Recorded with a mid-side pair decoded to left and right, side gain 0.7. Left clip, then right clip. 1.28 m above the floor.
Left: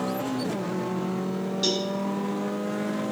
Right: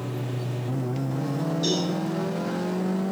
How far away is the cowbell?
About 4 m.